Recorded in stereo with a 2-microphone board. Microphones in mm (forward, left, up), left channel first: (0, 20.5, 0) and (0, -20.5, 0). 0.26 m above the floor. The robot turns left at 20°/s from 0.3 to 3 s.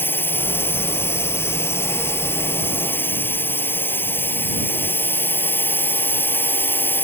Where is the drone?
115° left; by 7.0 s 65° left.